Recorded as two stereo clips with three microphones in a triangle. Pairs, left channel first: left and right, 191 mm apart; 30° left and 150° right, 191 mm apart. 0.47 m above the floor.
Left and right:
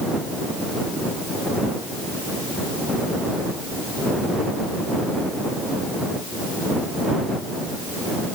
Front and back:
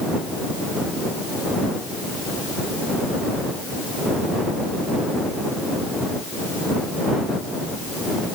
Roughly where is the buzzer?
No buzzer in this recording.